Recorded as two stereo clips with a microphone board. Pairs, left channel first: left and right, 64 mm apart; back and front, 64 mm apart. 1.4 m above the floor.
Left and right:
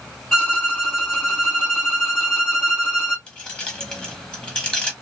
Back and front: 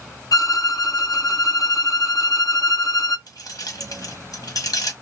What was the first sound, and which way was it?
A violin, 155° left.